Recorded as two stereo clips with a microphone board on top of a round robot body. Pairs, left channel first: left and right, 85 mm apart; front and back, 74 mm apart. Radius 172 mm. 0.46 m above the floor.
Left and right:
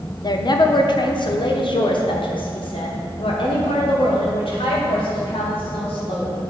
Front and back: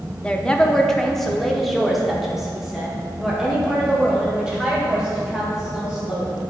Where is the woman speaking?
70° left, 1.0 m; by 6.4 s 100° left, 4 m.